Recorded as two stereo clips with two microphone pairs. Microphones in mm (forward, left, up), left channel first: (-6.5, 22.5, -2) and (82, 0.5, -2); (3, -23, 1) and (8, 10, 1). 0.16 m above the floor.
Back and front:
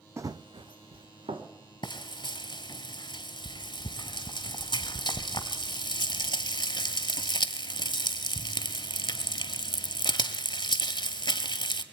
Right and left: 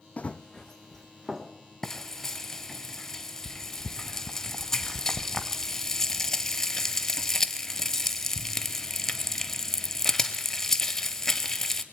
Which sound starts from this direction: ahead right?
Running footsteps, at 0.2 s.